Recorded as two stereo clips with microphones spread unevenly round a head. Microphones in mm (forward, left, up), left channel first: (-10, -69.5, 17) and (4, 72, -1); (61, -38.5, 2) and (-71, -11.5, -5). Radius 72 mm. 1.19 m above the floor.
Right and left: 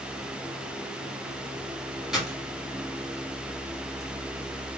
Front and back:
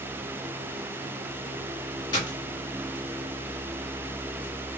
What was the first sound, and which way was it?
A dropped coin, 10° right.